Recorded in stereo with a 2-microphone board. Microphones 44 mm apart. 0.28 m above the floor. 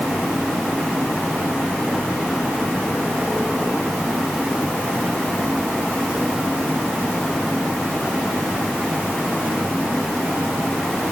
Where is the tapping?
I don't hear tapping.